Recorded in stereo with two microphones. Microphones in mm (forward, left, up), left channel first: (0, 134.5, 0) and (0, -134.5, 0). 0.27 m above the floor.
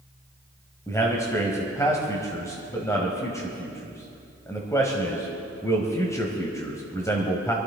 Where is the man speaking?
10° left (ahead or behind), 1.6 m.